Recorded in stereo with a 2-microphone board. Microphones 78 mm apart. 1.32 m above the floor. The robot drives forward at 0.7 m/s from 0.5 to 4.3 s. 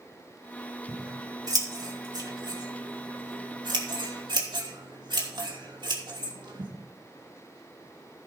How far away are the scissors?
About 3 m.